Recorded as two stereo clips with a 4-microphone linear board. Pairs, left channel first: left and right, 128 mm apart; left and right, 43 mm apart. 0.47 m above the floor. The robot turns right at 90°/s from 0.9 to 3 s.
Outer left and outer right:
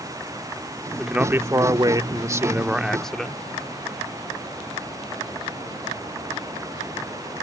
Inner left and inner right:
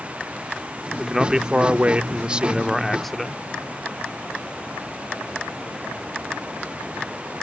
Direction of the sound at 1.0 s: Centre (ahead or behind).